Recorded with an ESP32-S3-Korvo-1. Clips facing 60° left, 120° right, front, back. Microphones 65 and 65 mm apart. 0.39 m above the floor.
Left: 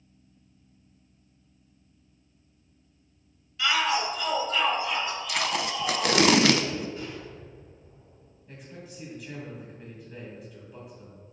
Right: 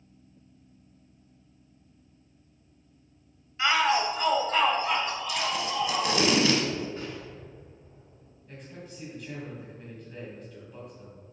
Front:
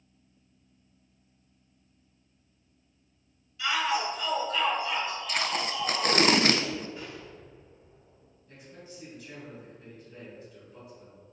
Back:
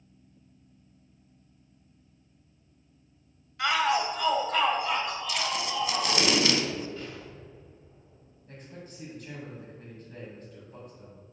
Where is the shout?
170° right, 1.5 m; by 6.2 s 160° right, 4 m.